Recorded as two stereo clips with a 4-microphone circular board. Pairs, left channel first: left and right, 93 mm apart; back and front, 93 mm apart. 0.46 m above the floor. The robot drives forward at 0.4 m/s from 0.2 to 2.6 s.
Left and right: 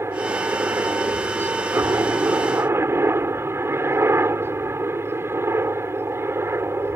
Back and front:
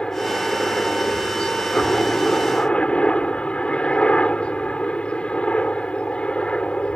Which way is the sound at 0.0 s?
110° right.